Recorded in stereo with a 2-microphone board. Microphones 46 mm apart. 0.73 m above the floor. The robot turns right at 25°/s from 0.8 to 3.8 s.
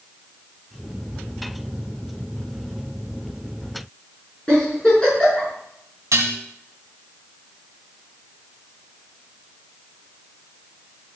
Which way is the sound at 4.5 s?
15° left (ahead or behind).